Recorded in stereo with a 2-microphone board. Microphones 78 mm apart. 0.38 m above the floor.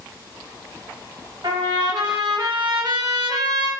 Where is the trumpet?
65° right (ahead or behind), 0.9 m.